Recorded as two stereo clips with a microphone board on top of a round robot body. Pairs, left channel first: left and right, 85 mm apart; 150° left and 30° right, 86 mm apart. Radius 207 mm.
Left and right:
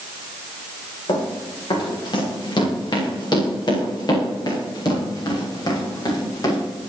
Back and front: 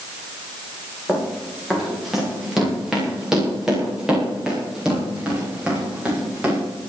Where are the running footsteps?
60° left, 9 m; by 6.6 s 45° left, 11 m.